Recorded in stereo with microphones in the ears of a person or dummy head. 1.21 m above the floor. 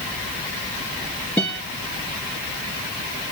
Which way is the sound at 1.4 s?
5° left (ahead or behind).